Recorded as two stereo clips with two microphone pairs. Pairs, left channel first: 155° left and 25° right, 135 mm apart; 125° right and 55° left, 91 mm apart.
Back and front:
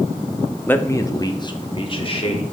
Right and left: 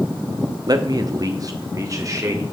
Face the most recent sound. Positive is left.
turn(degrees=110)